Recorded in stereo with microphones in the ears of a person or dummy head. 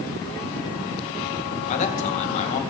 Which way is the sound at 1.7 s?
40° left (ahead or behind).